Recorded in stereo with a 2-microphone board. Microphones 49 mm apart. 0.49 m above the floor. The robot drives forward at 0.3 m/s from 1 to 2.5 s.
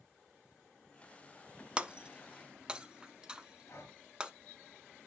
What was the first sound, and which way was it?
Breaking glass, 20° right (ahead or behind).